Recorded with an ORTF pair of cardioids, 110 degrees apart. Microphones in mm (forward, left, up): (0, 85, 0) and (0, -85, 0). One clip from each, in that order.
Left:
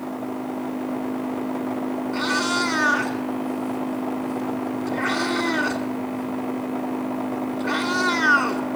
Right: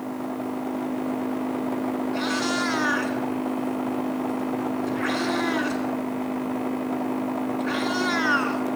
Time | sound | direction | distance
2.1 | a cat meowing | 20° left | 2.5 m